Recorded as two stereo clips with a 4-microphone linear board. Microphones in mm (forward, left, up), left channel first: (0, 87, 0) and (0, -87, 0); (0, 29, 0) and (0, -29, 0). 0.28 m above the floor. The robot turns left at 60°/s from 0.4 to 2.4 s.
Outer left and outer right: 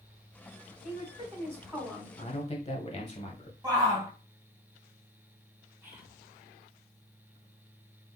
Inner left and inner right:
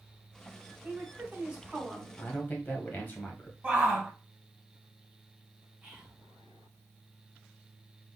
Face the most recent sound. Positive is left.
turn(degrees=-10)  # may be behind; listen again after turning